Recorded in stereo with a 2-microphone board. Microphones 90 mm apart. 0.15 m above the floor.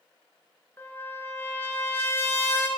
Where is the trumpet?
25° left (ahead or behind), 0.7 m.